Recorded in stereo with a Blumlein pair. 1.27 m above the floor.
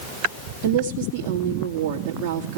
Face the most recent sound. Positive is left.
turn(degrees=-40)